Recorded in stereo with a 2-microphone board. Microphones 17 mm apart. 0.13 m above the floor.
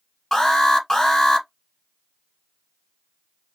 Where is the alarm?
25° left (ahead or behind), 1.0 m.